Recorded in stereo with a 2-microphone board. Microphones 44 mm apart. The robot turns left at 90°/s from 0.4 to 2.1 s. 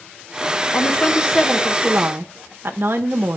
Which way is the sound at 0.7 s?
65° left.